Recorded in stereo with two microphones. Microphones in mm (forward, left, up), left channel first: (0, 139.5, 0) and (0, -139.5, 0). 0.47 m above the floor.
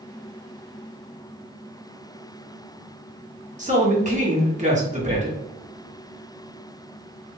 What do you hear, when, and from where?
3.6 s a man speaking: 25° right (ahead or behind), 1.3 m